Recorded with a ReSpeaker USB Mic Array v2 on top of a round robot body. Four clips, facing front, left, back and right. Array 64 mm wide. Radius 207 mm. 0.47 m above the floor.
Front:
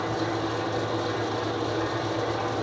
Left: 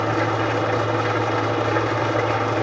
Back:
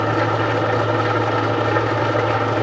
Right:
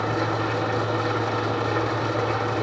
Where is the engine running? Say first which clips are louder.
Left 3 dB, back 9 dB; 150° left, 0.7 m.